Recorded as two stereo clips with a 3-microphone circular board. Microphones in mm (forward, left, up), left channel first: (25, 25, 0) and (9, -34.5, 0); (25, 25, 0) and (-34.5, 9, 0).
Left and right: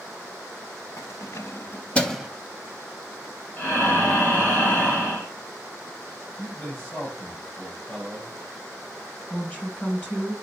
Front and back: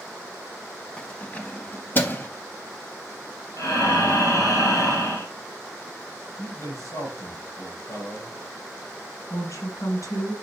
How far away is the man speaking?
About 7 m.